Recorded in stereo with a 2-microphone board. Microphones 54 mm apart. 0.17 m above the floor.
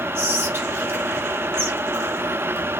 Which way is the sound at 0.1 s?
50° right (ahead or behind).